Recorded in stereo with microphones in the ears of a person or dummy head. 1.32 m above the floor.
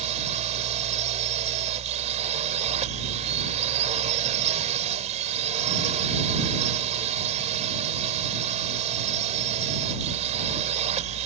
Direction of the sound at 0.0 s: 35° right (ahead or behind).